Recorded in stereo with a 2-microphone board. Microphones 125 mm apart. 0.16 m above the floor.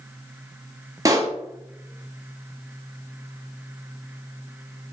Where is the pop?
25° right (ahead or behind), 2.0 m.